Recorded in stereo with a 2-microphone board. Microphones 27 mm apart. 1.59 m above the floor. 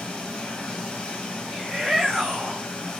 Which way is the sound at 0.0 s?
50° left (ahead or behind).